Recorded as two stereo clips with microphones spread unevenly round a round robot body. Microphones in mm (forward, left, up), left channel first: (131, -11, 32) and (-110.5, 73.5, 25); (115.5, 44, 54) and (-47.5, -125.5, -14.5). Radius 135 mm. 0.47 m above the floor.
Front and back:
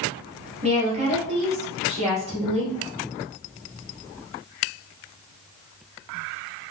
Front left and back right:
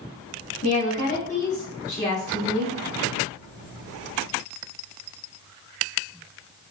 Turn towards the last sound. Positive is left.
turn(degrees=110)